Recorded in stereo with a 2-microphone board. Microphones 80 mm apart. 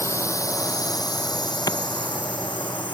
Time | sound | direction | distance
0.0 | a drone | 35° left (ahead or behind) | ?
1.7 | a clap | 55° left (ahead or behind) | ?